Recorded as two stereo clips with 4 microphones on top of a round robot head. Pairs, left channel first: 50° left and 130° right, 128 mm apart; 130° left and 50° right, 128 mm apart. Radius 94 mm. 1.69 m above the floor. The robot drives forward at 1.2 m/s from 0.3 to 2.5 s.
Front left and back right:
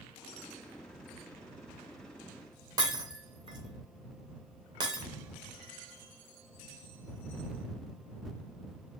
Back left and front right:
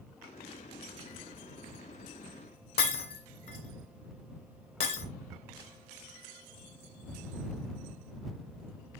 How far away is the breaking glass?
About 2.5 m.